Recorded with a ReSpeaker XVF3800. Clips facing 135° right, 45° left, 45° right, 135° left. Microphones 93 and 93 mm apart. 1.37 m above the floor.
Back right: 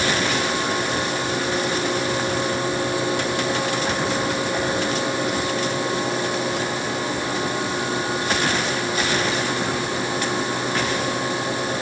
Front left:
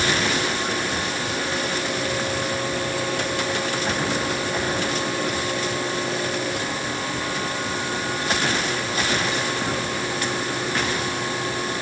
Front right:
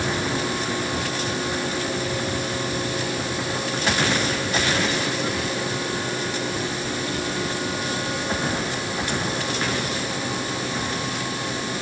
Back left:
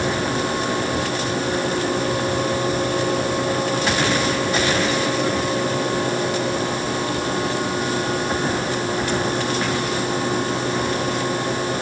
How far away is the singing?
I don't hear singing.